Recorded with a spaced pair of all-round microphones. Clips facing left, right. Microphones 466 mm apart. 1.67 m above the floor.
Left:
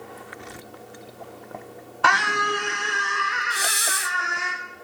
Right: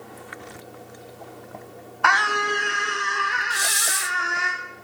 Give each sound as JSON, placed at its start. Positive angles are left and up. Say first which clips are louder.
{"t": 2.0, "sound": "a scream", "louder": "even", "side_deg": 55, "distance_m": 0.9}
{"t": 3.5, "sound": "a hiss", "louder": "left 1 dB", "side_deg": -15, "distance_m": 0.5}